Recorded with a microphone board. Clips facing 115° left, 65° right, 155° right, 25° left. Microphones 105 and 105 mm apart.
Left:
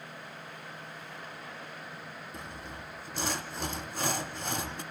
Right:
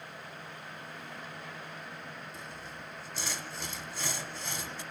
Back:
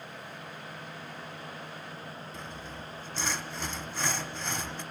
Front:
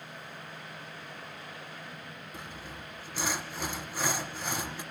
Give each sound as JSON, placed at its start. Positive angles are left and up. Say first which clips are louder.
{"t": 2.3, "sound": "sawing", "louder": "left 2 dB, back 2 dB", "azimuth_deg": 100, "distance_m": 0.6}